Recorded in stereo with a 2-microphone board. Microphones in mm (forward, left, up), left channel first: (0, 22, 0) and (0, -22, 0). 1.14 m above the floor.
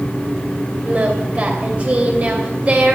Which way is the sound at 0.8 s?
35° right (ahead or behind).